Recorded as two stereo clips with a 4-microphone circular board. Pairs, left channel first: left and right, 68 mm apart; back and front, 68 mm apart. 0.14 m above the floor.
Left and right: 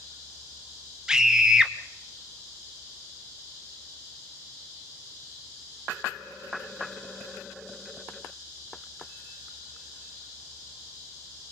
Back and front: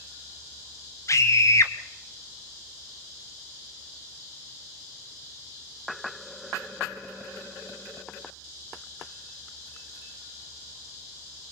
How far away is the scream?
About 1.6 m.